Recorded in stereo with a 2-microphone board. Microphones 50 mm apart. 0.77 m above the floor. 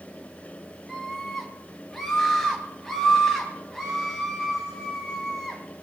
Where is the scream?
5° left (ahead or behind), 5 m.